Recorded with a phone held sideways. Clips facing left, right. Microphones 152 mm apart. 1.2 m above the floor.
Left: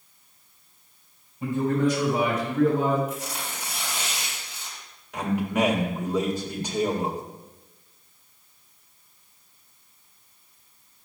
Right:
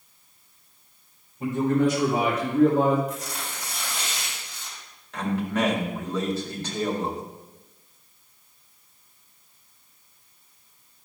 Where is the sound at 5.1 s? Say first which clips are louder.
Left 1 dB; 10° left (ahead or behind), 2.0 m.